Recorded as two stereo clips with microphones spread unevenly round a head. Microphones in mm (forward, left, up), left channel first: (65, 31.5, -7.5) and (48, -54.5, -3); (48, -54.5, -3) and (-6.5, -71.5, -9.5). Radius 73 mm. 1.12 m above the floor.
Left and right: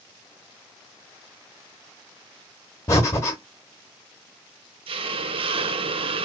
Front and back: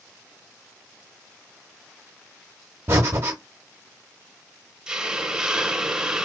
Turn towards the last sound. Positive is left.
turn(degrees=-85)